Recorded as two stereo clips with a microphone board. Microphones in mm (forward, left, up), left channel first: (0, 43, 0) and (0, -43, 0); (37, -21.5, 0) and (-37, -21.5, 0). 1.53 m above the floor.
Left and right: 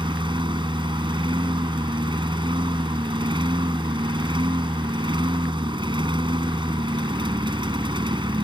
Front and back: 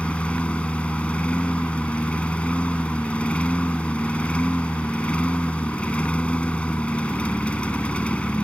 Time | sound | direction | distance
0.0 | a lawn mower | 75° right | ?